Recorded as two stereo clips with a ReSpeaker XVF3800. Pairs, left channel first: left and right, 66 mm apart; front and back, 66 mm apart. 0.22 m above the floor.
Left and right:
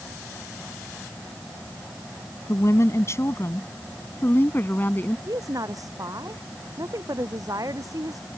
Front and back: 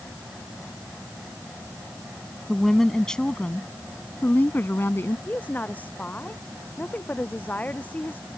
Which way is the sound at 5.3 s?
65° right.